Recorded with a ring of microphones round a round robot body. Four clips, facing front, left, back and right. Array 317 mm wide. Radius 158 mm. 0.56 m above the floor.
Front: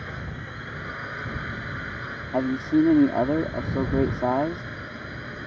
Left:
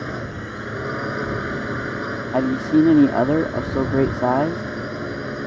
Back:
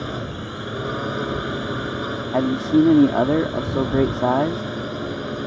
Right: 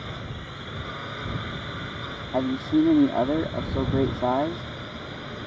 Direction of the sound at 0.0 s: 140° left.